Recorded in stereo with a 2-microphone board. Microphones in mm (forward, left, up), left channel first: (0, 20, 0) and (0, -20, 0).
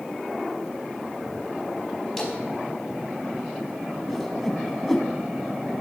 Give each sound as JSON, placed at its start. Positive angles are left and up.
{"t": 2.2, "sound": "a splash", "side_deg": 10, "distance_m": 4.5}
{"t": 4.1, "sound": "a whoosh", "side_deg": 5, "distance_m": 1.8}